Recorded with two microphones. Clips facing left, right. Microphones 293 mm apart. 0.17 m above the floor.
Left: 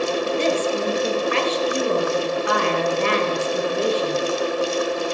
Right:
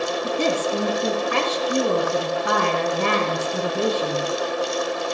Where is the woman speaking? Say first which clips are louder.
Right 1 dB; 50° right (ahead or behind), 3.5 m.